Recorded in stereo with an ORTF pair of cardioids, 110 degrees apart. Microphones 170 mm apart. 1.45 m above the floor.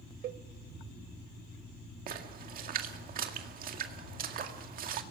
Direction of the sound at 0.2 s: 70° right.